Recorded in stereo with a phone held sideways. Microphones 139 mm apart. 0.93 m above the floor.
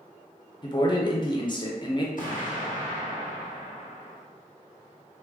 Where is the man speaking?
30° left (ahead or behind), 0.5 m.